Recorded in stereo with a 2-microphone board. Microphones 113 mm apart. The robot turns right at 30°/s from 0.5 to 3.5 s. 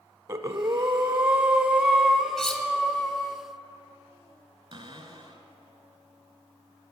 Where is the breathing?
55° right, 0.9 m; by 3.4 s 30° left, 0.9 m.